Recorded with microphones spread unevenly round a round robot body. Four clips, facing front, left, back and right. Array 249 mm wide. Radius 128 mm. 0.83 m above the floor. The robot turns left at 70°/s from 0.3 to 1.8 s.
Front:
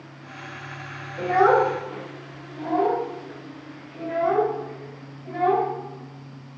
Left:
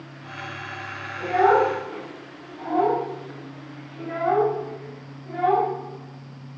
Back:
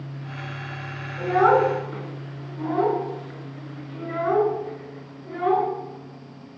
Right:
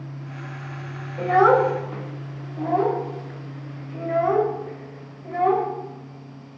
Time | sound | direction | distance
1.2 | a child speaking | 50° right | 2.5 m